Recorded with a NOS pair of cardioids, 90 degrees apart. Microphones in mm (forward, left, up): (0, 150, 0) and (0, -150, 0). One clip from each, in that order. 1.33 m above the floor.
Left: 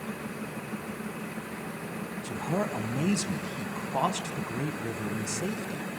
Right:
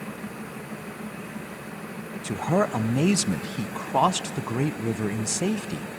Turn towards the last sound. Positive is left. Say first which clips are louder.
# right 7 dB
turn(degrees=-40)